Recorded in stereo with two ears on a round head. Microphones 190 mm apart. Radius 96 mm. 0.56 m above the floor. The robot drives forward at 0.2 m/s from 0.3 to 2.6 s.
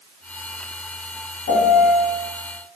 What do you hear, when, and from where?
1.5 s a piano: 65° left (ahead or behind), 0.8 m; by 2.0 s 55° left (ahead or behind), 0.9 m